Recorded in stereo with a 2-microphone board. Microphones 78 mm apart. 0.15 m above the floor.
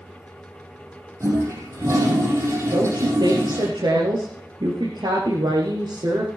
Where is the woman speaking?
65° right (ahead or behind), 3 m.